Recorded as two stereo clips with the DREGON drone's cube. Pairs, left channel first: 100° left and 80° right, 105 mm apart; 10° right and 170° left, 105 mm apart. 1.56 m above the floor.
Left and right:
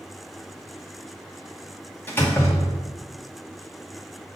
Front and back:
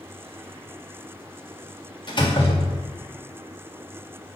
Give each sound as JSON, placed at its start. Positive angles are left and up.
{"t": 2.1, "sound": "a door slam", "azimuth_deg": 30, "distance_m": 1.6}